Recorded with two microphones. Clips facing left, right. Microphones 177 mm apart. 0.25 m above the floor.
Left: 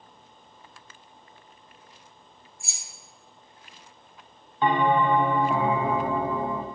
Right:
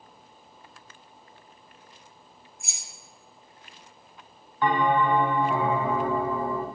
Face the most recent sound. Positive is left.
turn(degrees=25)  # may be behind; listen again after turning